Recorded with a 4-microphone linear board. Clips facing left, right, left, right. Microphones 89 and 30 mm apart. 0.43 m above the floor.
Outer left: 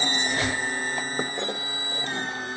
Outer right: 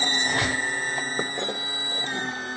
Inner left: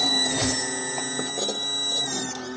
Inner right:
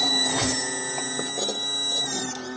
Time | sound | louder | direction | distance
0.2 | a squeak | outer right 3 dB, even | 60° right (ahead or behind) | 1.4 m